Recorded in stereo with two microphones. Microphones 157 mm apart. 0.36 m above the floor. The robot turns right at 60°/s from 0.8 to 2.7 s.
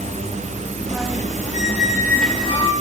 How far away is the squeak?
About 3.5 m.